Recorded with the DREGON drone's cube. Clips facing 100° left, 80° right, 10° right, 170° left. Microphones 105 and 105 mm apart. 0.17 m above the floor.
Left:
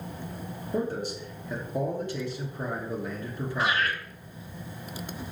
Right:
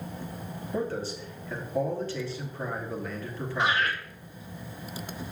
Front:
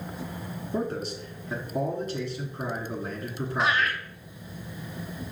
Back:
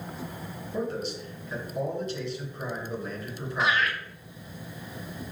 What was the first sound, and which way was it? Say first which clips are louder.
A man speaking: left 1 dB, front 1 dB; 30° left.